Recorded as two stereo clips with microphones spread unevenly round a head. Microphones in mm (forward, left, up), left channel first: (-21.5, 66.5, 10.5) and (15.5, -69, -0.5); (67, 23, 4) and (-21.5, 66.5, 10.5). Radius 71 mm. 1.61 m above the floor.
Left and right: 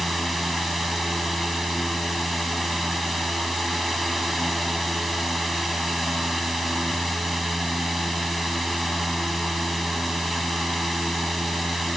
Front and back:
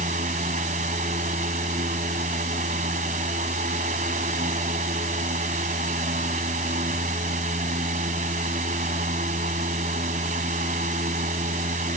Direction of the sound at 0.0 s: 165° right.